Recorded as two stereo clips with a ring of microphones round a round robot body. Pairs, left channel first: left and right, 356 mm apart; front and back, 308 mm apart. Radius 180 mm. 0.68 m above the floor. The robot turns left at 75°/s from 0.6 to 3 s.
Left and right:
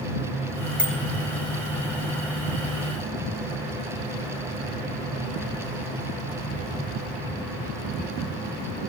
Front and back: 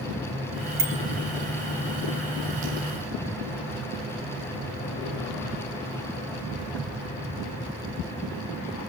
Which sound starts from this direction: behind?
A bicycle bell, at 0.8 s.